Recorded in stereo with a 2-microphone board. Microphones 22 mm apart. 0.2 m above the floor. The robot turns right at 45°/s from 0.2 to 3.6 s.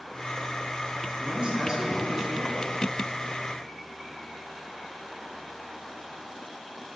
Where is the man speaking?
60° right, 3 m; by 2.6 s 5° left, 3 m.